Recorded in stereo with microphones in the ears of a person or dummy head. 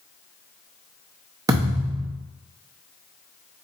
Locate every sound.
1.5 s a thud: 15° right (ahead or behind), 0.7 m